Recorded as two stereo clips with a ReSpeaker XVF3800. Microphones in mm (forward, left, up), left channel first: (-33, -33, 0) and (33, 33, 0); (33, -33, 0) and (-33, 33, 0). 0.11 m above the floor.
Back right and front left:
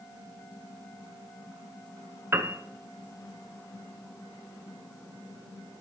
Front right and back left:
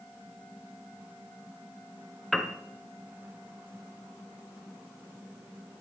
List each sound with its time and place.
2.3 s a piano: 40° left, 0.8 m